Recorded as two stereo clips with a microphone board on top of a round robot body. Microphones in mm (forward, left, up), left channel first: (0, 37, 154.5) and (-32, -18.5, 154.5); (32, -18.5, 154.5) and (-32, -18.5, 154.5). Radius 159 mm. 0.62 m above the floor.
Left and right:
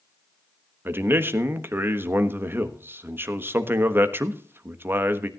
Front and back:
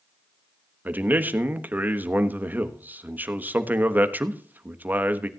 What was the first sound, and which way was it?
A man speaking, 140° right.